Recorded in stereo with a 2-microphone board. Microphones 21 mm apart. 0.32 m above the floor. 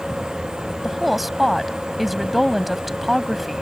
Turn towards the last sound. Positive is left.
turn(degrees=-5)  # may be behind; listen again after turning